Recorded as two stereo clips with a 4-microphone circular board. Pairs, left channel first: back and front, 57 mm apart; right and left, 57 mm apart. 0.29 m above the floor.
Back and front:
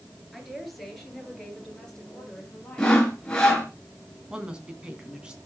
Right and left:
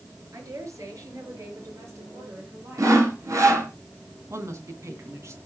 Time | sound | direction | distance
0.3 | a woman speaking | 85° left | 5 m
2.8 | sawing | 105° left | 3 m
4.3 | a woman speaking | 70° left | 3 m